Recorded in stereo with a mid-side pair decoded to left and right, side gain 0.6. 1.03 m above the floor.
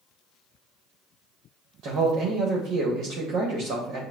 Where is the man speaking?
55° right, 1.1 m.